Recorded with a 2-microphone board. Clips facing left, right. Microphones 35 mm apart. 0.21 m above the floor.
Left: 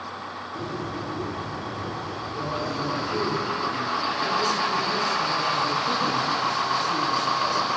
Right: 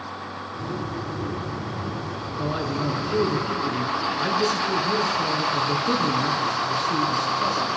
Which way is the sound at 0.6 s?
50° left (ahead or behind).